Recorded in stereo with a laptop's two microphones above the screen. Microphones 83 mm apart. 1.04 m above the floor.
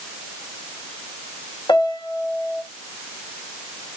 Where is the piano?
65° left (ahead or behind), 1.5 m.